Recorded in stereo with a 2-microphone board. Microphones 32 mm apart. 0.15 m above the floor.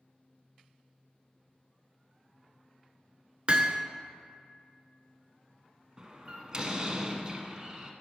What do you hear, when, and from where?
3.5 s hammering: 35° right (ahead or behind), 0.5 m
6.0 s a door slam: 25° right (ahead or behind), 0.9 m